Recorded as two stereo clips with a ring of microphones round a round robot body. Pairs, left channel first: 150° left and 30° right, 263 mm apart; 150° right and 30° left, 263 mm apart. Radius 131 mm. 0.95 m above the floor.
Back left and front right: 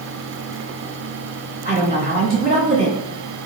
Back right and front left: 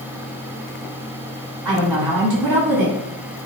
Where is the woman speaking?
30° left, 1.7 m.